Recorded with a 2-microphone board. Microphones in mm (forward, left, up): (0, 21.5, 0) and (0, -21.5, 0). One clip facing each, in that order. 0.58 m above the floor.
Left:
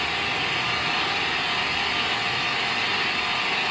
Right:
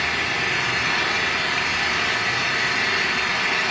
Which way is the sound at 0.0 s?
75° right (ahead or behind).